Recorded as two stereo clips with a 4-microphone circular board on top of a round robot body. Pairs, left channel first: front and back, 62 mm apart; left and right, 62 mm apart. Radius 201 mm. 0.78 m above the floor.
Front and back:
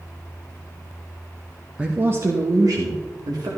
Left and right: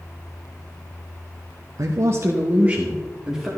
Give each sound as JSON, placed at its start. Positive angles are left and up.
{"t": 1.8, "sound": "a man speaking", "azimuth_deg": -105, "distance_m": 1.1}